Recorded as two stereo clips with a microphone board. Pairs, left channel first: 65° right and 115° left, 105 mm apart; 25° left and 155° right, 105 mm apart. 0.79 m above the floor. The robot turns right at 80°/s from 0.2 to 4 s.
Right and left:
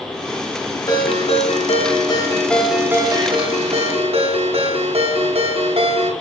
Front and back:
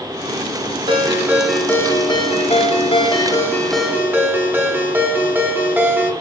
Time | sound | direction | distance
0.9 | a ringtone | 120° right | 1.0 m